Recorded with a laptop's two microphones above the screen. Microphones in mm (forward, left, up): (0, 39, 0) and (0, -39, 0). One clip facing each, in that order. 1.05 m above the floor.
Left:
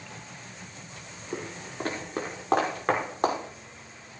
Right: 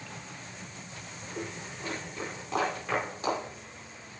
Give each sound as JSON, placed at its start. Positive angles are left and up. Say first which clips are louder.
{"t": 1.3, "sound": "footsteps", "louder": "left 4 dB", "side_deg": 75, "distance_m": 5.0}